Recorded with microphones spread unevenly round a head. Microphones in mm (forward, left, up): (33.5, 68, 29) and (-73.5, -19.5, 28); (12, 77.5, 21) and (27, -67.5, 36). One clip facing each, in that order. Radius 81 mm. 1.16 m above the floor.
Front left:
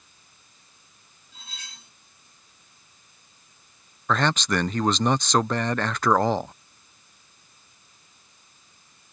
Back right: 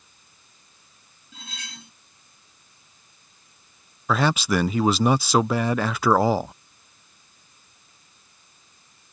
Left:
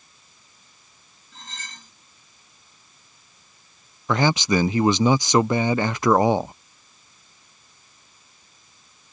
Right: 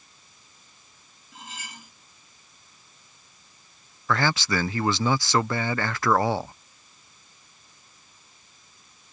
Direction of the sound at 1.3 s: 165° right.